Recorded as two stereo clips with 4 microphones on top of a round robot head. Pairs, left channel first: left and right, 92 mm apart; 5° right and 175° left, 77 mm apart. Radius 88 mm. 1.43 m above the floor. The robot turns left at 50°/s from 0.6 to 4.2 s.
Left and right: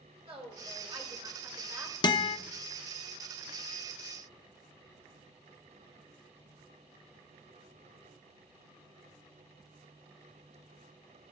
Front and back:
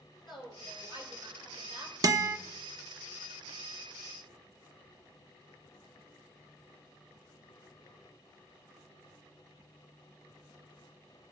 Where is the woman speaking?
100° right, 5.5 m; by 1.9 s 165° right, 5.5 m.